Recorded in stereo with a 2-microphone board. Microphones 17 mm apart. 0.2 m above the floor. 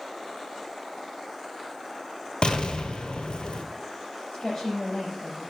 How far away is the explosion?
About 1.0 m.